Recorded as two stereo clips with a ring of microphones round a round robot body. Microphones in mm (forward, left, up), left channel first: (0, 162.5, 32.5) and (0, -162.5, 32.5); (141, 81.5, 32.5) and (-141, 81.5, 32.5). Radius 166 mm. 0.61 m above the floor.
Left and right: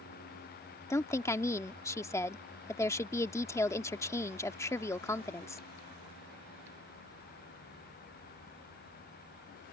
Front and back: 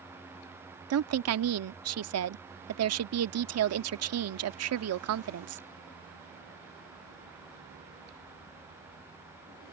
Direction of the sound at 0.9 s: 170° left.